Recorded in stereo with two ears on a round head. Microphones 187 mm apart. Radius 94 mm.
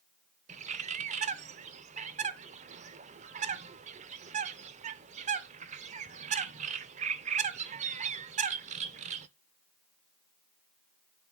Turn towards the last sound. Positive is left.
turn(degrees=-35)  # may be behind; listen again after turning